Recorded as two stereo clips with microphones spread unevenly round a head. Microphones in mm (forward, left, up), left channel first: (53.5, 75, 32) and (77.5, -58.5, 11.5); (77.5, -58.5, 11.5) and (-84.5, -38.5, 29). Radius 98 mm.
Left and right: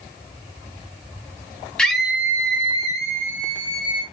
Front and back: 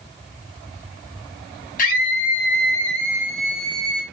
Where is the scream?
25° left, 0.8 m; by 4.0 s 70° right, 1.2 m.